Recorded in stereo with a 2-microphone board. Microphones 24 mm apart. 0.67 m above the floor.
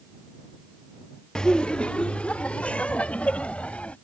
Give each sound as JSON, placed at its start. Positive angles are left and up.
{"t": 1.4, "sound": "laughter", "side_deg": 35}